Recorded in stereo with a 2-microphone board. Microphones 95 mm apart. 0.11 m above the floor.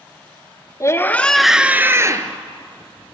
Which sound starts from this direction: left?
A scream, at 0.8 s.